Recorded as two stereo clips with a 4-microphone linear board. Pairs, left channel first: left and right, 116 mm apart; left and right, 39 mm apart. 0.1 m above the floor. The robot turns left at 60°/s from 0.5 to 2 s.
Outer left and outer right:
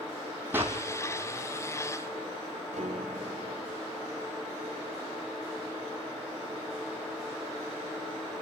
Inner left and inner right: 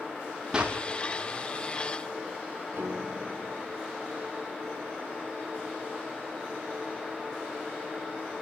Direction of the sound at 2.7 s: 85° right.